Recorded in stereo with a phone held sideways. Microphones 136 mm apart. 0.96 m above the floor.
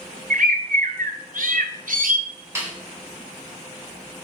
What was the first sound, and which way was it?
A bird, 80° right.